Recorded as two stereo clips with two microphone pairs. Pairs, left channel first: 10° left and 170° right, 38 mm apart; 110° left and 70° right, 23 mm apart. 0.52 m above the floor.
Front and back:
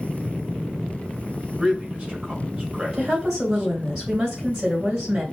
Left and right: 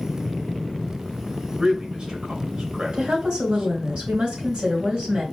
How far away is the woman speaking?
About 3 m.